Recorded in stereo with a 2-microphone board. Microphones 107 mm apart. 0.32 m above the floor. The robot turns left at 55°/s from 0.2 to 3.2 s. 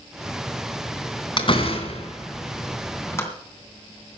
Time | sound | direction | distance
1.4 | a door slam | 45° left (ahead or behind) | 2.5 m